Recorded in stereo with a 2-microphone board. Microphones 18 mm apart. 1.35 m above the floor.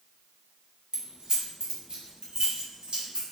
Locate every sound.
0.9 s keys jangling: 40° right (ahead or behind), 2.0 m; by 3.2 s 65° right (ahead or behind), 4.5 m